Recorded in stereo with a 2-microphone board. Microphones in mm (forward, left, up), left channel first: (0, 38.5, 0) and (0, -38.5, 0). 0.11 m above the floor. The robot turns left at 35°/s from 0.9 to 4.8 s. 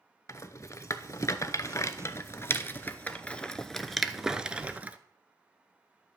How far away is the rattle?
About 0.5 m.